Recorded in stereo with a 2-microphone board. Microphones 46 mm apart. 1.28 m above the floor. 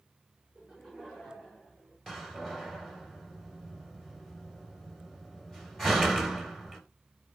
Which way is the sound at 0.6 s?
Centre (ahead or behind).